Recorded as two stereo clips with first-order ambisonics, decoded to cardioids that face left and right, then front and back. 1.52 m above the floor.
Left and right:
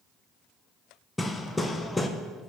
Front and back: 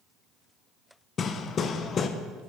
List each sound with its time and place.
1.2 s hammering: 15° left, 0.5 m